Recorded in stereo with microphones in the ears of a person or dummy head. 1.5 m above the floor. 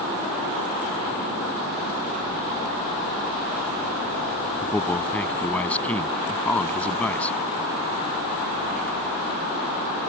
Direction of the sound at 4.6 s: 10° left (ahead or behind).